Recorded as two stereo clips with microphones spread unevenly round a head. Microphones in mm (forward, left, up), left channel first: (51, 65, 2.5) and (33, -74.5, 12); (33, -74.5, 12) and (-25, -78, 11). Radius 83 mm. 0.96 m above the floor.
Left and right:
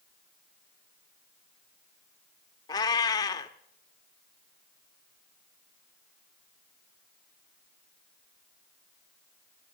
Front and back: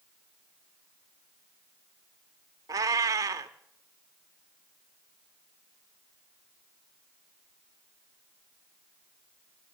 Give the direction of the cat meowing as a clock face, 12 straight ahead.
7 o'clock.